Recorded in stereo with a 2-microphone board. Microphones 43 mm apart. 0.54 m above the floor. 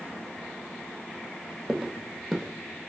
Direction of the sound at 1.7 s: 5° left (ahead or behind).